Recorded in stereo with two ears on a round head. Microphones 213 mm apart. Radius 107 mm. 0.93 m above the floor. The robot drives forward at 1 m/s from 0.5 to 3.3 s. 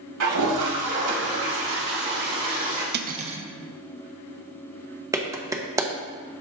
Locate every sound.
0.2 s a toilet flushing: 75° right (ahead or behind), 1.8 m; by 2.8 s 35° right (ahead or behind), 3 m
2.9 s cutlery clinking: 45° right (ahead or behind), 0.5 m; by 3.4 s 25° right (ahead or behind), 0.8 m
5.1 s a clap: 15° right (ahead or behind), 0.8 m